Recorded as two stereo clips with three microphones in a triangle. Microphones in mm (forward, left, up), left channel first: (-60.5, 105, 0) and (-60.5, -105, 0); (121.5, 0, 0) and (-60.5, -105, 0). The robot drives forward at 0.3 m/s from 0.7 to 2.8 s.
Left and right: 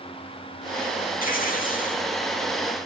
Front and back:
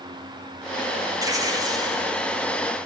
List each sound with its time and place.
1.2 s tearing paper: 135° left, 5.5 m; by 2.0 s 140° left, 5.5 m